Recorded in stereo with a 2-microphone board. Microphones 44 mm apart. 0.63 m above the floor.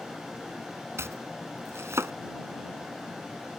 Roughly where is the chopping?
Right.